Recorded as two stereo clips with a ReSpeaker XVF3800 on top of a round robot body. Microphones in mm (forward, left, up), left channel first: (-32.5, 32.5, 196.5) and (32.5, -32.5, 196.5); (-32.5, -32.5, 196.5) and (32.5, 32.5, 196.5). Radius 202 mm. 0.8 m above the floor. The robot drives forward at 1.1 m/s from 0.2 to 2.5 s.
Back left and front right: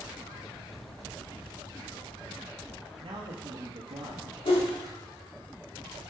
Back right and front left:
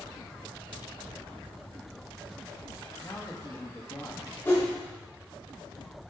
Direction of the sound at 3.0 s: 70° right.